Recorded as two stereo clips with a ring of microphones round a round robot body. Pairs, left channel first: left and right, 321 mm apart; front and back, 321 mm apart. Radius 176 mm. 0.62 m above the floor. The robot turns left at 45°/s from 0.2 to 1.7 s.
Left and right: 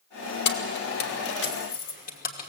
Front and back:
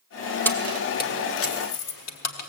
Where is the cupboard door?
I don't hear a cupboard door.